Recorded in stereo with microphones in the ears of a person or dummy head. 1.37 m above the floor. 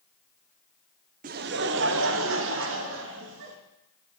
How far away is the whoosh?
No whoosh in this recording.